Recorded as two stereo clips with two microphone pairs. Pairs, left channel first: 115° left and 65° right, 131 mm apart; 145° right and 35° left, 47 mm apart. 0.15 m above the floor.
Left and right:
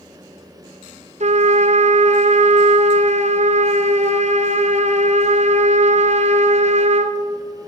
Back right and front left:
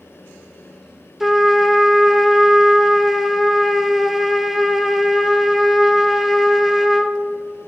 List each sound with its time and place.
1.2 s a trumpet: 45° right, 0.7 m